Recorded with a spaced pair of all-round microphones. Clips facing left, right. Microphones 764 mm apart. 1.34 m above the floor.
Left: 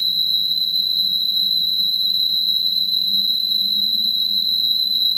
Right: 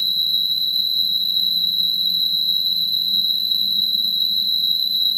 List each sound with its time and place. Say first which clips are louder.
0.0 s an insect: even; 70° left (ahead or behind)